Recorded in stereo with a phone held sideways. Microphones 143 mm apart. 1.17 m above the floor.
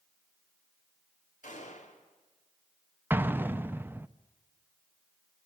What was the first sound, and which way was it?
A gunshot, 60° left (ahead or behind).